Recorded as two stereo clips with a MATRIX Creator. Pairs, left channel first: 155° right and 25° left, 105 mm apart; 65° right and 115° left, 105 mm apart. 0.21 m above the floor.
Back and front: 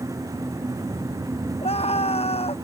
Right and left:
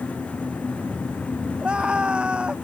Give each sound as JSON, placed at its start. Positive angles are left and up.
{"t": 1.6, "sound": "a scream", "azimuth_deg": -170}